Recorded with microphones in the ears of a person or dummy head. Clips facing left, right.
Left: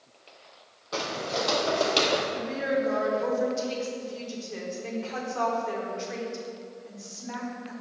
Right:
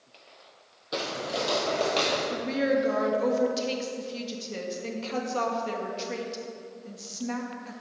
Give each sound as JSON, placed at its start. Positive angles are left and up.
{"t": 0.9, "sound": "footsteps", "side_deg": -20, "distance_m": 2.5}
{"t": 2.3, "sound": "a woman speaking", "side_deg": -50, "distance_m": 2.0}